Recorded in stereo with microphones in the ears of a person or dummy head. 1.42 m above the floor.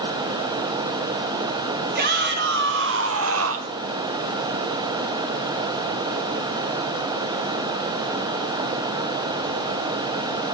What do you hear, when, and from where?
1.9 s a shout: 50° right (ahead or behind), 2 m; by 3.8 s 55° right (ahead or behind), 0.8 m